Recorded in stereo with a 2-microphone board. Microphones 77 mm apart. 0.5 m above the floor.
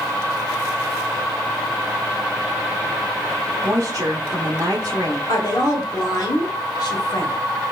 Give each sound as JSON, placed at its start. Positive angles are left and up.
{"t": 3.6, "sound": "a woman speaking", "side_deg": -45, "distance_m": 1.2}
{"t": 5.3, "sound": "a woman speaking", "side_deg": 55, "distance_m": 1.4}